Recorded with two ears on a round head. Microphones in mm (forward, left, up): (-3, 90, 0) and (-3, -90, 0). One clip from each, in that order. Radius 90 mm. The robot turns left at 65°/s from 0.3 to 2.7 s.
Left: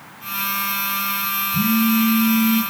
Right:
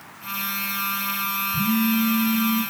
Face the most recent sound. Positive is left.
turn(degrees=25)